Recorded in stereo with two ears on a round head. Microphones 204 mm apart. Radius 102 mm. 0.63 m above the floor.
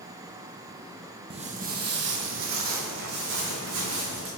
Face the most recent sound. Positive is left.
turn(degrees=-65)  # may be behind; listen again after turning